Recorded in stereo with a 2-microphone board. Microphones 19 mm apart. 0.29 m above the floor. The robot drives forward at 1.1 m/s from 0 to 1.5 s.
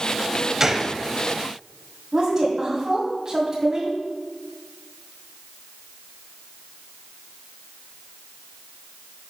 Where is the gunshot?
25° right (ahead or behind), 0.8 m; by 0.9 s 20° right (ahead or behind), 1.1 m.